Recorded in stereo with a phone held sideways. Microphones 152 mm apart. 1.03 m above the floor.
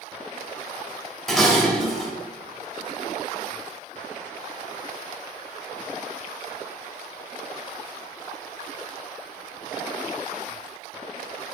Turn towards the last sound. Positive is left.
turn(degrees=0)  # may be behind; listen again after turning